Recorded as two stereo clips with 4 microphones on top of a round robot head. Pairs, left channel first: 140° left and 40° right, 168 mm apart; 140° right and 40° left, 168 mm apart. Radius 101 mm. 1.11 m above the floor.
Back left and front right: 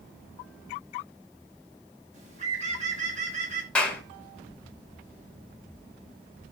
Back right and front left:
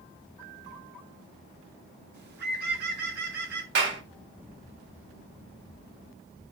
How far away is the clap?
About 1.6 m.